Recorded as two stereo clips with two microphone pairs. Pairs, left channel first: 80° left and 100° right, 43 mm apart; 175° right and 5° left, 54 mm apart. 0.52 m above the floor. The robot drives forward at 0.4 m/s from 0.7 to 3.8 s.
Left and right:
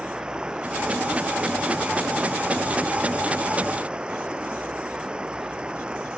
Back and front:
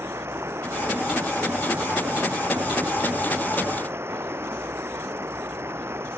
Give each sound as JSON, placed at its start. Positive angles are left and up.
{"t": 0.0, "sound": "running water", "azimuth_deg": -30}